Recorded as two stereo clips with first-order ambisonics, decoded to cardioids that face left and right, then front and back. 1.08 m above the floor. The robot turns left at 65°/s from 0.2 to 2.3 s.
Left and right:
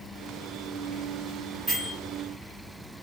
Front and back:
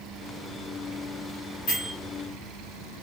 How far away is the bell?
About 1.3 m.